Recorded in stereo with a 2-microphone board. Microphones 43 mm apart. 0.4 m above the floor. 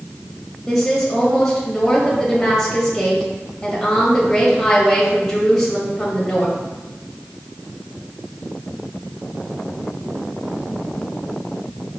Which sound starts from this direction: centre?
A woman speaking, at 0.7 s.